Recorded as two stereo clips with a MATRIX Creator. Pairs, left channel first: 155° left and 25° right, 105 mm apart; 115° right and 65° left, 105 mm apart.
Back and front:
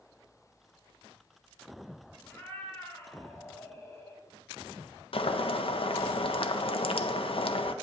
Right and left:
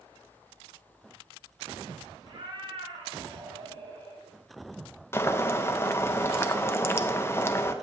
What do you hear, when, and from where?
2.2 s a cat meowing: 90° left, 2 m
5.1 s boiling: 175° right, 0.6 m